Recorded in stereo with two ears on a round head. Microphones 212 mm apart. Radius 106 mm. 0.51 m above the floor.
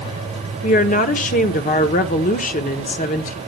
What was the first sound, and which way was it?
A woman speaking, 35° left (ahead or behind).